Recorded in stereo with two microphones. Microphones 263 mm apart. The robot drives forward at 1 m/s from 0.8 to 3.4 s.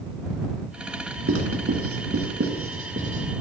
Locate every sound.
1.3 s writing: 55° right (ahead or behind), 2 m; by 3.2 s 45° right (ahead or behind), 2.5 m